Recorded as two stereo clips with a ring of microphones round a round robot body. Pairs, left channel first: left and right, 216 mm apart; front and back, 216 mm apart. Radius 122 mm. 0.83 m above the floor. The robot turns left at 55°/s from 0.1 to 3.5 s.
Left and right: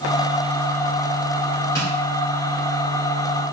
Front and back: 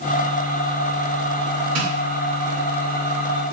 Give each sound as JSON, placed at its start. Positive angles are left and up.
{"t": 1.8, "sound": "tapping", "azimuth_deg": 140, "distance_m": 2.5}